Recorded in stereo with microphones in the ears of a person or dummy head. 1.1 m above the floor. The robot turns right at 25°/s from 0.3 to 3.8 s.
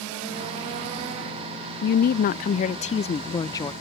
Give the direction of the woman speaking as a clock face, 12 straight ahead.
8 o'clock.